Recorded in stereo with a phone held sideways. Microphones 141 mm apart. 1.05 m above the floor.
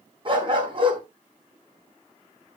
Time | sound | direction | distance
0.2 | a dog barking | 40° right (ahead or behind) | 4 m